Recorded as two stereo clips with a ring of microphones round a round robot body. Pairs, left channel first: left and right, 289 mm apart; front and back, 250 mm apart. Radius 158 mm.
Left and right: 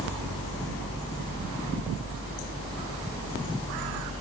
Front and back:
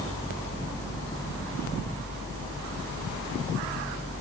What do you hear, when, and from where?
Only background noise.